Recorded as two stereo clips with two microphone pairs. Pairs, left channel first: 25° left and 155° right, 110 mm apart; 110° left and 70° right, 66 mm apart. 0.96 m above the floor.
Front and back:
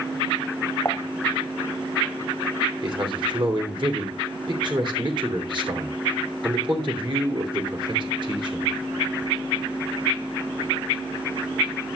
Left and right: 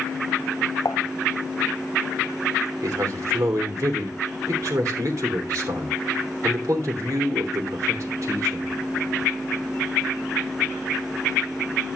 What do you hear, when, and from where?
0.8 s dishes clattering: 95° left, 0.5 m
2.8 s a man speaking: 110° right, 3 m